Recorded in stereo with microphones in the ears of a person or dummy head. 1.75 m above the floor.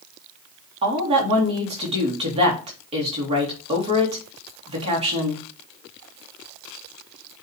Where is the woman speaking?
30° right (ahead or behind), 3 m.